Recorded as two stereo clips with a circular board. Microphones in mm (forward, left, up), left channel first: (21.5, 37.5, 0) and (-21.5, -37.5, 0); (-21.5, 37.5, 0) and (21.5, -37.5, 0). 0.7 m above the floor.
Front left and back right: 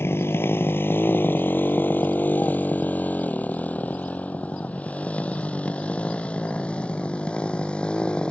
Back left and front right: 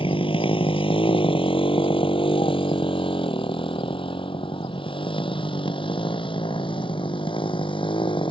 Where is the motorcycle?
120° left; by 8.3 s 140° left.